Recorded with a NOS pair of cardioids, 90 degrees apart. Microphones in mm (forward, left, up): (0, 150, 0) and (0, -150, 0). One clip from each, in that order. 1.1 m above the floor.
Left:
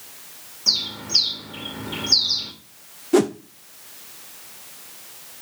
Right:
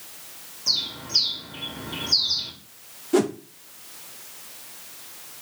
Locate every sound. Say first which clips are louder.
0.7 s a bird: left 3 dB; 30° left, 2 m
3.1 s a whoosh: left 3 dB; 15° left, 0.7 m